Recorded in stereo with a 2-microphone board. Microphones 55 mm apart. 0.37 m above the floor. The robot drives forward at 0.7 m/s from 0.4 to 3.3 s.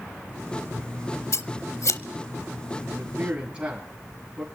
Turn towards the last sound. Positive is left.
turn(degrees=-15)  # may be behind; listen again after turning